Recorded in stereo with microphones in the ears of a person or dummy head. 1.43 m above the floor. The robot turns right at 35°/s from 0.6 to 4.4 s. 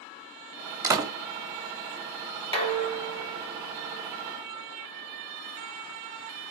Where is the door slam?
15° right (ahead or behind), 0.7 m; by 1.1 s 25° right (ahead or behind), 0.7 m.